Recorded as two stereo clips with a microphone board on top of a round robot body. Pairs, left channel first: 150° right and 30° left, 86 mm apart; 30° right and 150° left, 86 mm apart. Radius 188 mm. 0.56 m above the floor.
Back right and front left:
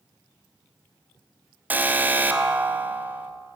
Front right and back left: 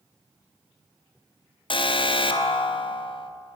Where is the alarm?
40° right, 1.1 m.